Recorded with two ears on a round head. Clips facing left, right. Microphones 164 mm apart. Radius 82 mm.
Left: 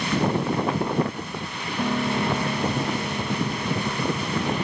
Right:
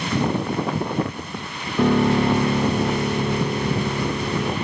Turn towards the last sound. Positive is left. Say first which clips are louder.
# right 7 dB
turn(degrees=-60)  # may be behind; listen again after turning